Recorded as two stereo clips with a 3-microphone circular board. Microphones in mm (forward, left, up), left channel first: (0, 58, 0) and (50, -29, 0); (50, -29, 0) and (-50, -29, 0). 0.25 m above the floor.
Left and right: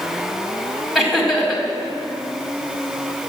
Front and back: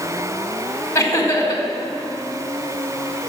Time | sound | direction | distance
0.9 | laughter | 30° left | 1.7 m